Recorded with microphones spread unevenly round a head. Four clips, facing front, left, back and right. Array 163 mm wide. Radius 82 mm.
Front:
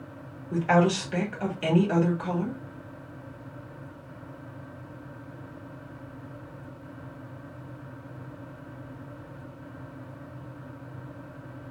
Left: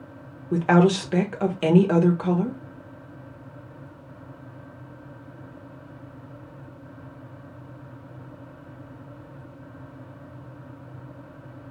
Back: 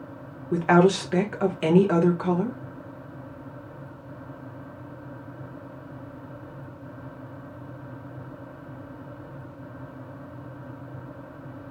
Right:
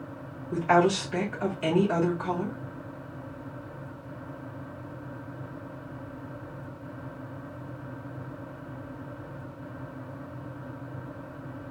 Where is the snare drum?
I don't hear a snare drum.